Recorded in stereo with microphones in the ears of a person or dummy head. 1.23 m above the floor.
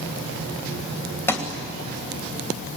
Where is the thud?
15° left (ahead or behind), 2.5 m.